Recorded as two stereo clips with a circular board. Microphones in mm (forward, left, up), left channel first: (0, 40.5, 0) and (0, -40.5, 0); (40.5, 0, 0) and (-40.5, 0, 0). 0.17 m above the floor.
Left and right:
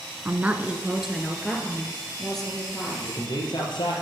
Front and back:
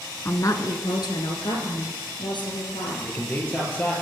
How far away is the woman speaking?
About 1.5 m.